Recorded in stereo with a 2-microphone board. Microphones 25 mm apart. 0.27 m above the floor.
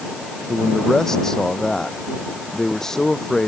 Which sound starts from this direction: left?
A man speaking, at 0.5 s.